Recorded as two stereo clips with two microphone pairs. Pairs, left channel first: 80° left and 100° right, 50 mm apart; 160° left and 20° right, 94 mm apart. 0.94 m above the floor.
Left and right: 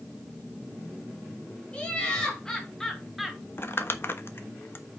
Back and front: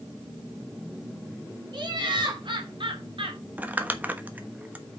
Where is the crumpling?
50° left, 1.2 m.